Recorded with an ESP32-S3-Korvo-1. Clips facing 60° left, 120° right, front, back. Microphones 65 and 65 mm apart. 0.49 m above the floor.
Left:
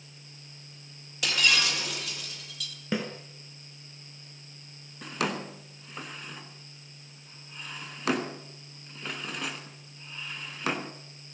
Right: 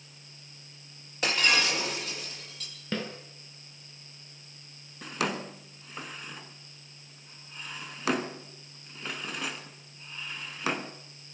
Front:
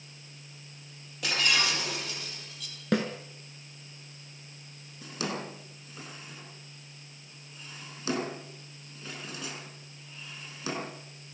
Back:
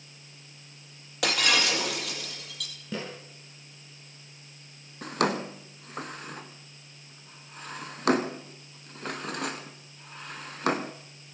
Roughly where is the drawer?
Behind left.